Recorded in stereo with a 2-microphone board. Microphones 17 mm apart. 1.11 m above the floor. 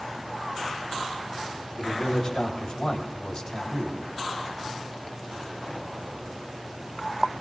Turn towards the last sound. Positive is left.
turn(degrees=30)  # may be behind; listen again after turning